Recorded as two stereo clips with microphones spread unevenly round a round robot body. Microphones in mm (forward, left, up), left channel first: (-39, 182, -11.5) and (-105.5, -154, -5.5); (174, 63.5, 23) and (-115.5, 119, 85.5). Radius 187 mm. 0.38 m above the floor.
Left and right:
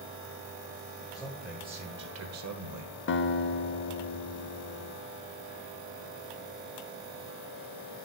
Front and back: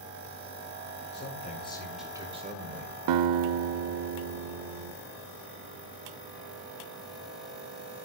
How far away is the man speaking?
About 1.5 m.